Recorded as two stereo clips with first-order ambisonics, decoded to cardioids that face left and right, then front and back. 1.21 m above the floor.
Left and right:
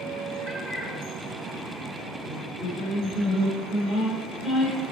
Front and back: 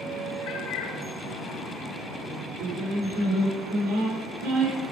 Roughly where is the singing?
Behind.